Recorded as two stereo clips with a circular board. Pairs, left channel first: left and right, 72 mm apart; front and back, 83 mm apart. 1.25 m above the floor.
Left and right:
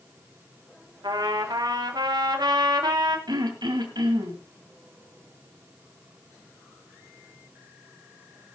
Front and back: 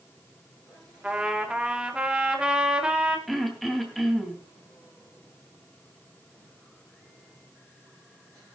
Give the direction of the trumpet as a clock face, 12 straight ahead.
3 o'clock.